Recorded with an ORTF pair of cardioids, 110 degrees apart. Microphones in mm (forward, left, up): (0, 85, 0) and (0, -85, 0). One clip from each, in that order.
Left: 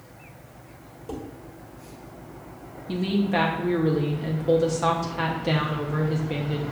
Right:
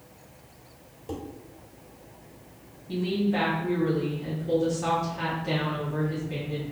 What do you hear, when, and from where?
1.1 s dishes clattering: 5° left, 1.5 m
2.9 s a woman speaking: 40° left, 0.6 m